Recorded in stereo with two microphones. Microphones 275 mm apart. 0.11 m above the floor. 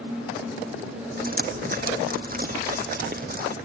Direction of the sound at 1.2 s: 35° right (ahead or behind).